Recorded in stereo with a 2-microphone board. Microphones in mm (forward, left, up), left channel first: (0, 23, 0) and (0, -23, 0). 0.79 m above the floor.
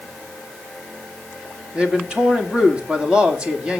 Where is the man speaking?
20° right (ahead or behind), 2 m.